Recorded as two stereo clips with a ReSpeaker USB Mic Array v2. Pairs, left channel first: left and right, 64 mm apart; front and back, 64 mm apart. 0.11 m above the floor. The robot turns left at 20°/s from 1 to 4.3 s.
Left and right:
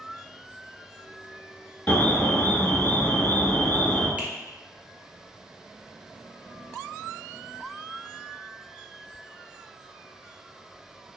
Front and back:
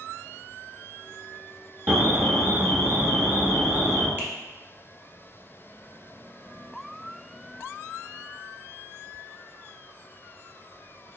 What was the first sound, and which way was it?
An alarm, 155° left.